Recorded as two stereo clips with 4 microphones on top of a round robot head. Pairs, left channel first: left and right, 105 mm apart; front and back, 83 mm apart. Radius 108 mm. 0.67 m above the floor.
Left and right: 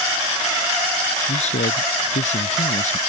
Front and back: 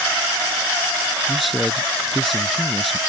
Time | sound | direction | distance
1.3 | a man speaking | 90° left | ?